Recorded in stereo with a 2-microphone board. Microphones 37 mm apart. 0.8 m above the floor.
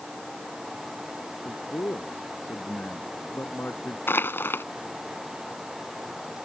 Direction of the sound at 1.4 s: 70° left (ahead or behind).